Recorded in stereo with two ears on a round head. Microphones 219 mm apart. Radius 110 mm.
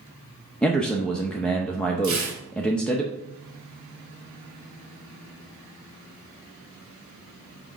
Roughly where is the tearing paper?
Right.